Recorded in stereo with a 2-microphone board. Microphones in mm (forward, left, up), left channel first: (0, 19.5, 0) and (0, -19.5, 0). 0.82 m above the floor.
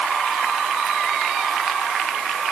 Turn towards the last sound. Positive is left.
No sound to turn to.